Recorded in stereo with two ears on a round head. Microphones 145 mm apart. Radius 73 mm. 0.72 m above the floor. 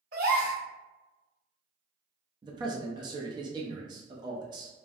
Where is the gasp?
70° right (ahead or behind), 1.9 m.